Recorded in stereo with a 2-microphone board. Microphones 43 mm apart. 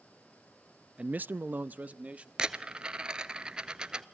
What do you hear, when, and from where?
1.0 s a man speaking: 25° right (ahead or behind), 0.5 m; by 2.3 s 30° right (ahead or behind), 1.4 m
2.4 s a dropped coin: 20° right (ahead or behind), 0.9 m